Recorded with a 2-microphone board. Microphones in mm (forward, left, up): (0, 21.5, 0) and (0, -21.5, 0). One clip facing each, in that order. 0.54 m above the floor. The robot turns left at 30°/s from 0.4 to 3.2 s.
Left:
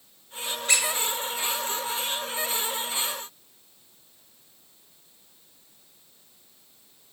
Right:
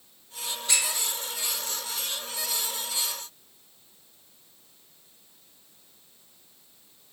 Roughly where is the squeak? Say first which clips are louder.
Left 4 dB; left.